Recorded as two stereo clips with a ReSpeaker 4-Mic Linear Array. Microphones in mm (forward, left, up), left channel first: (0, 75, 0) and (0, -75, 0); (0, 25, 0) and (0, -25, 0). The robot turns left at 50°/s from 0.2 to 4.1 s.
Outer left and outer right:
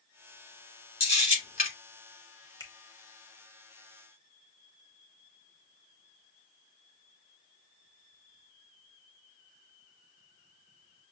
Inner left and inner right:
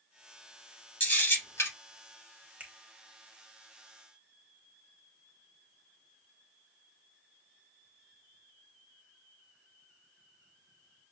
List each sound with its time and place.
1.0 s a camera shutter: 40° left (ahead or behind), 3 m; by 1.7 s 70° left (ahead or behind), 3 m
2.6 s a finger snap: 30° right (ahead or behind), 0.9 m; by 2.7 s 25° right (ahead or behind), 0.9 m